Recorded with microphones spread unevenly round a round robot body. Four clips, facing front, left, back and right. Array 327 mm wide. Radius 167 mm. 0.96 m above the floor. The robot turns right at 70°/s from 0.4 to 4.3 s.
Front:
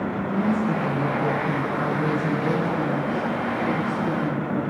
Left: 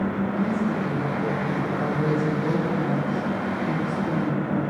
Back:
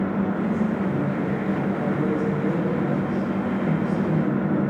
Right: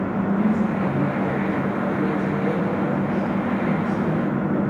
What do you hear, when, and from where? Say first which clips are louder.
0.3 s a woman speaking: right 3 dB, front 1 dB; 20° right, 5 m; by 4.7 s 105° right, 5 m